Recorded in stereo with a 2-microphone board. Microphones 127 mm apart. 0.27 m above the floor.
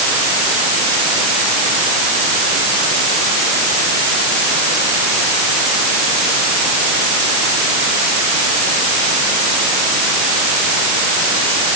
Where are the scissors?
I don't hear scissors.